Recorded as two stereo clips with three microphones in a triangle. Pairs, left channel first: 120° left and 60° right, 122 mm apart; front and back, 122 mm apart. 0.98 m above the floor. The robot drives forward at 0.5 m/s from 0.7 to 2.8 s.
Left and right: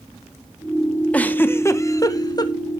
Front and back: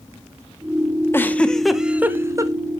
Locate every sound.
1.1 s a giggle: 50° left, 0.8 m; by 2.5 s 145° left, 0.9 m